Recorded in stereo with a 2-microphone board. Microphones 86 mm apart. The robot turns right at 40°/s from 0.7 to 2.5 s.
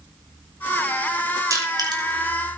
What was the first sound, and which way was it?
Crushing, 40° right (ahead or behind).